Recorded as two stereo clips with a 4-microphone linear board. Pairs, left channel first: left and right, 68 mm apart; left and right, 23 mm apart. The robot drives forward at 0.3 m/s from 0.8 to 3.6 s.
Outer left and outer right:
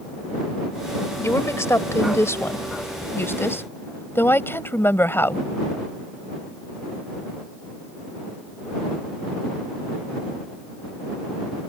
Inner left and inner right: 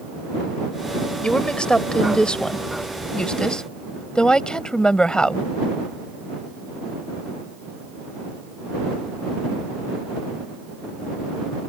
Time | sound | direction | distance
1.2 | a woman speaking | 45° left (ahead or behind) | ?